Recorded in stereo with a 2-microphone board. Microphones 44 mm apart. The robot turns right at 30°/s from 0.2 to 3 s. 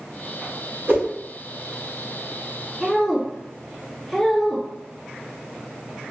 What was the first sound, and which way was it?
A whoosh, 45° right (ahead or behind).